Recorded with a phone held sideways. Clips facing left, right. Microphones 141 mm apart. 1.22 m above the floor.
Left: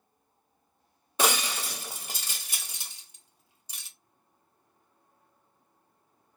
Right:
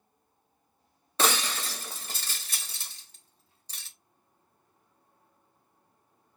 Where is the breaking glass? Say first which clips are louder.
Even; 15° left (ahead or behind), 0.8 m.